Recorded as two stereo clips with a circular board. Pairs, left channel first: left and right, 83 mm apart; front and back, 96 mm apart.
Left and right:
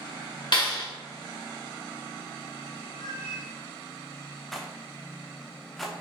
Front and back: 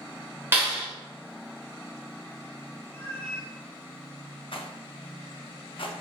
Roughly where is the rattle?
Ahead.